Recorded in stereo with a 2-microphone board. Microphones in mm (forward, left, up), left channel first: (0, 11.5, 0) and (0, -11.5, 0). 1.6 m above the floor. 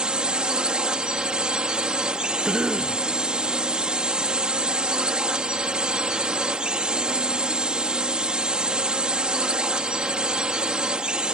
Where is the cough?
40° right (ahead or behind).